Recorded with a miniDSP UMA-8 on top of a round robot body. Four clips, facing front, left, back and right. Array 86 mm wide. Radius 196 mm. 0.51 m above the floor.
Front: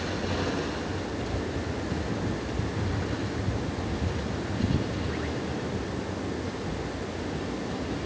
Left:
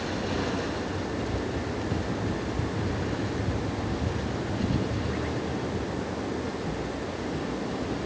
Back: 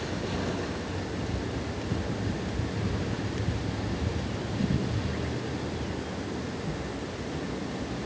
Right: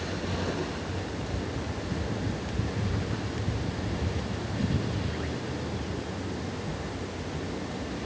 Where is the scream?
No scream in this recording.